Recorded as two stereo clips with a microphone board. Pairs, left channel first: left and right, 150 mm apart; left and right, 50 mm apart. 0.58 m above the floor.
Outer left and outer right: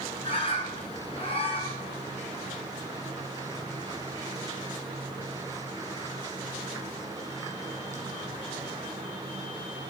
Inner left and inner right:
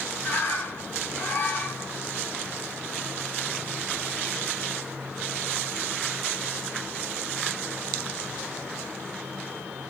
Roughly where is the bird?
Left.